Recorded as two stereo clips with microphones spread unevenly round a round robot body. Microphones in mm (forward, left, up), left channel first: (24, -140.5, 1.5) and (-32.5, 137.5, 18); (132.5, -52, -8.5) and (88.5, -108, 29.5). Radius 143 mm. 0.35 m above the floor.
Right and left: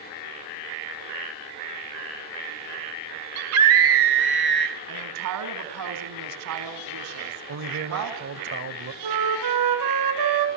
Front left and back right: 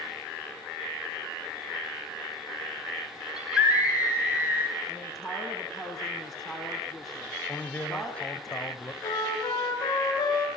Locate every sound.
3.4 s a scream: 125° left, 2.5 m; by 4.8 s 145° left, 1.7 m
4.9 s a woman speaking: 130° left, 4 m
7.5 s a man speaking: 75° left, 2.0 m
9.0 s a flute: 85° left, 5 m